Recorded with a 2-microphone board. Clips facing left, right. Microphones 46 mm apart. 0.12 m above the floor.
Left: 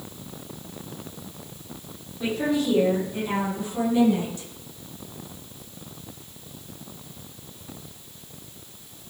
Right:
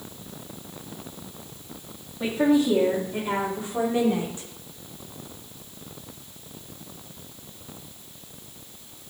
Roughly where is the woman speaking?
Right.